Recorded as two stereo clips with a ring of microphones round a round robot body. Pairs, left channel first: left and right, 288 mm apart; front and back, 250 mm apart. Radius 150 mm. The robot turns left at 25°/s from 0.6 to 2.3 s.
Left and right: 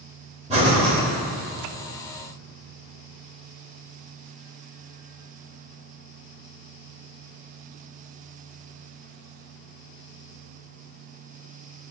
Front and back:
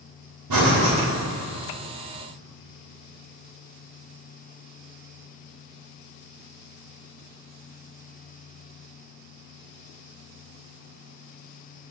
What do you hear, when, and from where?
0.5 s breathing: 160° right, 2.5 m; by 0.9 s 170° right, 2.5 m